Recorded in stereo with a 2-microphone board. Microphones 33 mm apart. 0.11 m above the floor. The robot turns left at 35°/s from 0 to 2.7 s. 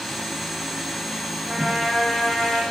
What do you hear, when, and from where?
1.5 s a trumpet: 170° right, 7.5 m; by 2.6 s 150° left, 7.5 m